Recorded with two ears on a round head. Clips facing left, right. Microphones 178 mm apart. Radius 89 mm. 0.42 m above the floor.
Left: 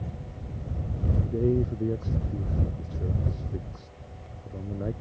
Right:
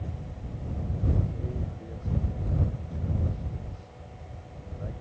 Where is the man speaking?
70° left (ahead or behind).